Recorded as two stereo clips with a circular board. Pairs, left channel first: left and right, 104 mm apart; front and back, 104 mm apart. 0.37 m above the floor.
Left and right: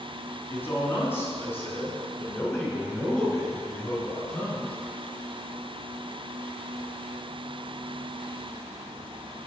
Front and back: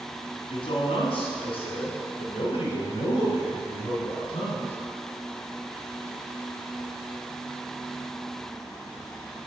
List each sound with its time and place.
0.5 s a man speaking: 25° left, 2 m; by 4.8 s 20° left, 4.5 m